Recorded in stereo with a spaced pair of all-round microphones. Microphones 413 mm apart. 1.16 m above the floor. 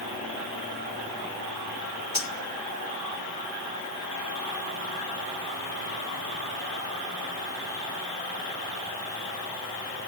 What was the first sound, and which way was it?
Cutlery clinking, 65° left (ahead or behind).